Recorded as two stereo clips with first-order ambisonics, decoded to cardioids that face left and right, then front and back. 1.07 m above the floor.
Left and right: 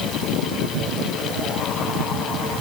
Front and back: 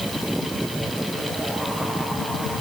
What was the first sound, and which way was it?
Only background noise.